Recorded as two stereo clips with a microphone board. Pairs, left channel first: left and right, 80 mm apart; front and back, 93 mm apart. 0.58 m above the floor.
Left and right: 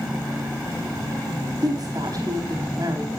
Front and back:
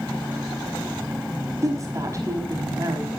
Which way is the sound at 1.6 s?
125° right.